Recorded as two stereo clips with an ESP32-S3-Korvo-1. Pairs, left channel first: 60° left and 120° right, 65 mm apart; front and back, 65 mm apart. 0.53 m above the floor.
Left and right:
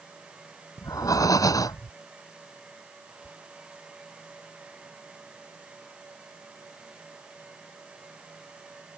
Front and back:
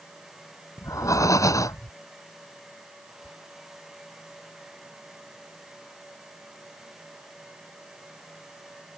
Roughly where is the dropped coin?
I don't hear a dropped coin.